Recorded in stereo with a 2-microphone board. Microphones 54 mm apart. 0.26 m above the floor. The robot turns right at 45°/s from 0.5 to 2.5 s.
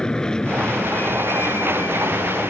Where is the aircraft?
15° left; by 2.5 s 105° left.